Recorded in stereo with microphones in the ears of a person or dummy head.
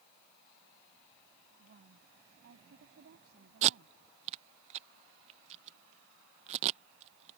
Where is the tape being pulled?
40° right (ahead or behind).